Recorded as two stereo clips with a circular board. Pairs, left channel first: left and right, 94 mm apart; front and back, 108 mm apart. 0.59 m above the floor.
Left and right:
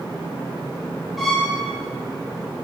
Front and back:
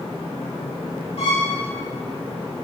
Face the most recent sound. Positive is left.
turn(degrees=0)